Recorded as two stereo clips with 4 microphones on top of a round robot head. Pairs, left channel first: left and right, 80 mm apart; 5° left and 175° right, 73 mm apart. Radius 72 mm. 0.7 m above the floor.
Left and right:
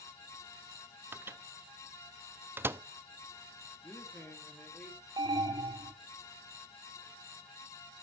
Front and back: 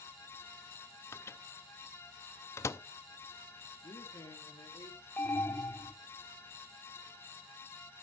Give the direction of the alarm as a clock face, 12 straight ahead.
2 o'clock.